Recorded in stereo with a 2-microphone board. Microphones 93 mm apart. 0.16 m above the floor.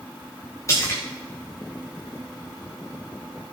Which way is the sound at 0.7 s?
35° left (ahead or behind).